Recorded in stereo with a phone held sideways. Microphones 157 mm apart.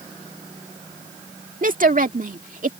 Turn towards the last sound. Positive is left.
turn(degrees=-65)  # may be behind; listen again after turning